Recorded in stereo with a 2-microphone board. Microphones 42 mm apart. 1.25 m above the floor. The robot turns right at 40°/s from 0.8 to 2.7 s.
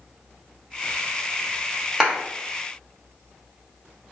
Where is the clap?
10° right (ahead or behind), 0.9 m; by 2.2 s 15° right (ahead or behind), 0.9 m.